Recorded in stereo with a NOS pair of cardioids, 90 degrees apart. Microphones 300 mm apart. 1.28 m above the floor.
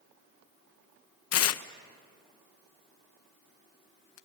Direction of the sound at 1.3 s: 55° left.